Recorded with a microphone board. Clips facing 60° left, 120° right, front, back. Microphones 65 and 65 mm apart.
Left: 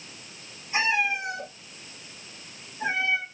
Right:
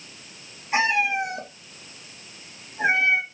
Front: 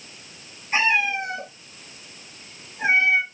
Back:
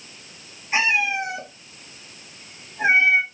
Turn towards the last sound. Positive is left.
turn(degrees=-115)